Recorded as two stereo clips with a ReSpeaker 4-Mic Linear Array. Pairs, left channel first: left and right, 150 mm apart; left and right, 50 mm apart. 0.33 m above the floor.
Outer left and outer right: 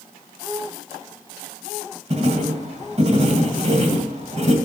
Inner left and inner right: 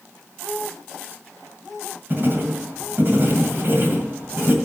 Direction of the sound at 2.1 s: 45° right (ahead or behind).